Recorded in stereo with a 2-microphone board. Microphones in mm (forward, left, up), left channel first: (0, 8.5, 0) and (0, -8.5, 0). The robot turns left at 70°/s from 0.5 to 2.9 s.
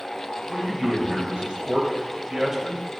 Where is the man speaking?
15° right, 3 m; by 2.9 s straight behind, 3 m.